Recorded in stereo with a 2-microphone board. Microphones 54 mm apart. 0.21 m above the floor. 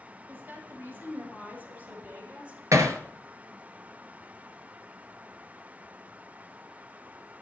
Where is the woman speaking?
40° right (ahead or behind), 6 m; by 2.6 s 25° right (ahead or behind), 6.5 m.